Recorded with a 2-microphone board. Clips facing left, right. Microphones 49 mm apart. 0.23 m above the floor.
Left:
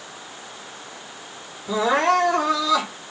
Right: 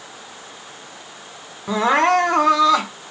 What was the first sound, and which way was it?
Crying, 55° right (ahead or behind).